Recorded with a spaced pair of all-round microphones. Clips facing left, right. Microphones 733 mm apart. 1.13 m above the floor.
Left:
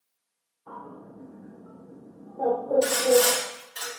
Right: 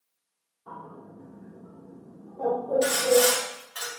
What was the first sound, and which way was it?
A bird, 60° right (ahead or behind).